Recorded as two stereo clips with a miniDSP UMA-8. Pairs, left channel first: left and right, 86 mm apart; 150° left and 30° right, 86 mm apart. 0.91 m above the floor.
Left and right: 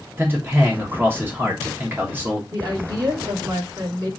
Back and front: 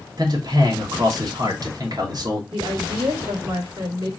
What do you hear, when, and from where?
0.2 s a man speaking: 30° right, 1.2 m
2.5 s a woman speaking: 45° right, 2 m